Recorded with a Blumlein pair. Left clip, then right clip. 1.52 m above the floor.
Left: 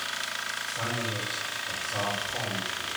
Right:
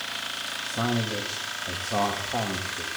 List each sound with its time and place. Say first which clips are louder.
0.6 s a man speaking: right 3 dB; 55° right, 2.5 m